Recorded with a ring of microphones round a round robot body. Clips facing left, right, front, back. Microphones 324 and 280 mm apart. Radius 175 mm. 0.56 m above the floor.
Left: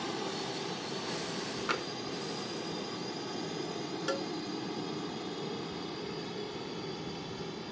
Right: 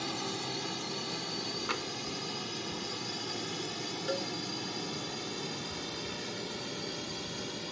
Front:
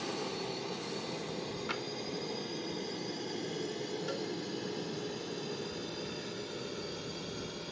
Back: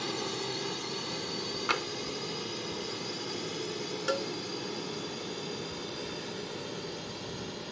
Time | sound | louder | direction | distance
0.0 | a drone | left 1 dB, back 2 dB | 120° right | ?
1.7 | tapping | left 2 dB, back 4 dB | 170° right | ?
4.1 | a cowbell | even, back 9 dB | 160° left | ?